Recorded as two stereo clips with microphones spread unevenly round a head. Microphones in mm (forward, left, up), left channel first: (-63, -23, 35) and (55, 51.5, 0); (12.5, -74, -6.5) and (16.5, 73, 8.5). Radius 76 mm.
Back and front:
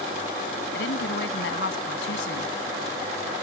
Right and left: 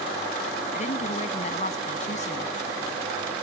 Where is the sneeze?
I don't hear a sneeze.